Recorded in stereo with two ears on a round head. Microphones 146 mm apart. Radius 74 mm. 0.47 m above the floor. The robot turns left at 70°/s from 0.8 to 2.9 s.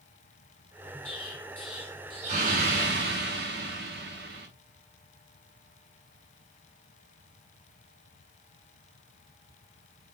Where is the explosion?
45° left, 4.5 m; by 4.5 s 85° right, 4.5 m.